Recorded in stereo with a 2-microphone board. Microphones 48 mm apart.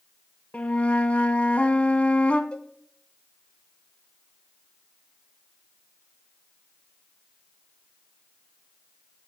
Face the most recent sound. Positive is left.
turn(degrees=20)  # may be behind; listen again after turning